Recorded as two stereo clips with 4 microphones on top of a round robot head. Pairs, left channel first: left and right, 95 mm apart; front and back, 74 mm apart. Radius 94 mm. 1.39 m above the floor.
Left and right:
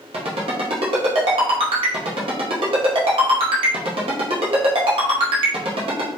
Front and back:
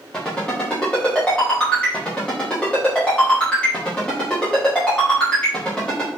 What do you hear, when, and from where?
0.1 s a ringtone: 80° right, 0.6 m